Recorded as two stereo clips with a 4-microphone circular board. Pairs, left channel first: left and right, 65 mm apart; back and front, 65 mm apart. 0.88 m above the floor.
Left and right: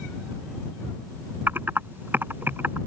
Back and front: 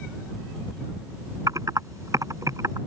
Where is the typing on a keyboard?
30° right.